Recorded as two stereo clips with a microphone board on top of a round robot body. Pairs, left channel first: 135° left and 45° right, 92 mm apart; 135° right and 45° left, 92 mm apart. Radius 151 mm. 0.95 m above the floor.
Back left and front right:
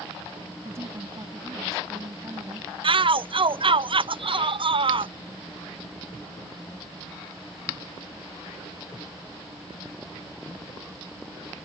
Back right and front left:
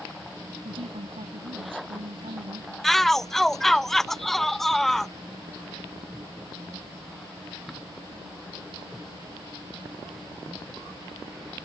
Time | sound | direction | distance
0.7 | a woman speaking | 15° left | ?
2.8 | a shout | 50° right | ?